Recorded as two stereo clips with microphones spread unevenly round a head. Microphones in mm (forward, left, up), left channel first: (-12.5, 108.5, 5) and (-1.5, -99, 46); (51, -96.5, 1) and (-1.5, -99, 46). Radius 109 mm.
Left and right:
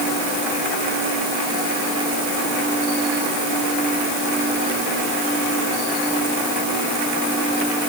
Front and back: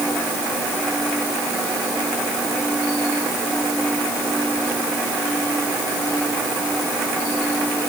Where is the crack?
I don't hear a crack.